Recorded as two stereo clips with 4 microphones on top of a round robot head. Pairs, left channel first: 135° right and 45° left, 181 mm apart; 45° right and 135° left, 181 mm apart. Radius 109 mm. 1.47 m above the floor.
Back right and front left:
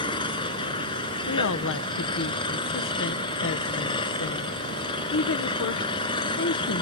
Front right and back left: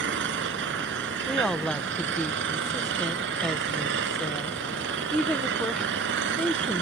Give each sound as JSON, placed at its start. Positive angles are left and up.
{"t": 0.0, "sound": "an engine running", "azimuth_deg": 160}
{"t": 1.3, "sound": "a woman speaking", "azimuth_deg": -130}